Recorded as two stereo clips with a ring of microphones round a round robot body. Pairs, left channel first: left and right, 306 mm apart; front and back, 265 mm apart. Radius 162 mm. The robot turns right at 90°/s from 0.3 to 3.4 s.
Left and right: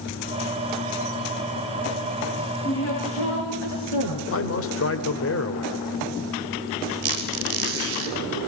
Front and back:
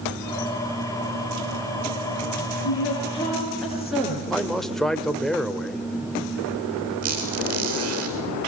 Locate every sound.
2.6 s a woman speaking: 20° left, 7.5 m; by 4.2 s 90° left, 7.5 m
4.3 s a man speaking: 90° left, 1.5 m
7.0 s a squeak: 135° right, 3 m